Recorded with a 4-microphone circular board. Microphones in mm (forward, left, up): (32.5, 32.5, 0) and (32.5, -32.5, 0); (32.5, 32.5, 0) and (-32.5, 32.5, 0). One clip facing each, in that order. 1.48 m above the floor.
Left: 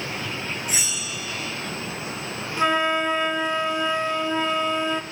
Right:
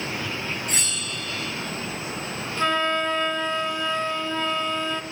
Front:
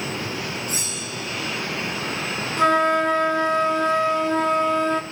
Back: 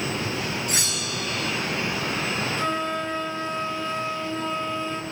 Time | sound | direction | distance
0.7 | a bell | 175° left | 0.5 m
2.6 | a flute | 15° left | 1.3 m